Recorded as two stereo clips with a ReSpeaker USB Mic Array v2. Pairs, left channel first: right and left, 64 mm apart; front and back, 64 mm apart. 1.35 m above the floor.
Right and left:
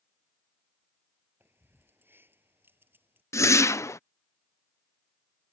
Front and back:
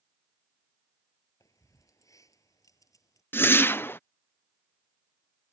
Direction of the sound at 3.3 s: 50° right.